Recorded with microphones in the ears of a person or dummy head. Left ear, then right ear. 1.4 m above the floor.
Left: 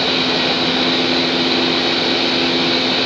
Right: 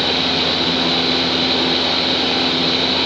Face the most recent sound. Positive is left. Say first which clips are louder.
# left 1 dB
turn(degrees=0)  # may be behind; listen again after turning